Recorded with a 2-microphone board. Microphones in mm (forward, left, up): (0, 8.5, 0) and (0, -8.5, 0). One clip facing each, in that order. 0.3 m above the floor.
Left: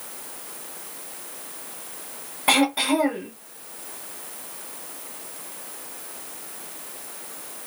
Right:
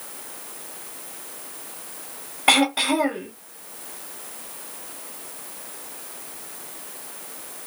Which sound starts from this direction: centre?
Throat clearing, at 2.5 s.